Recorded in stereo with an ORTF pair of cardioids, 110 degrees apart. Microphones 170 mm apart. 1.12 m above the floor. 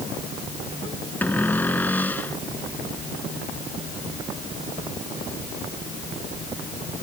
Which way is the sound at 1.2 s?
10° left.